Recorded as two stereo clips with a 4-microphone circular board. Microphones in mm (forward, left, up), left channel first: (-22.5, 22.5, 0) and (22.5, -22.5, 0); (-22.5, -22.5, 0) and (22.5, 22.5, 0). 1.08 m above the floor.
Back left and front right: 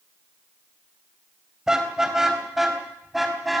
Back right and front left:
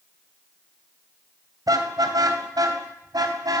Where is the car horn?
35° left, 3 m; by 3.6 s 45° left, 4.5 m.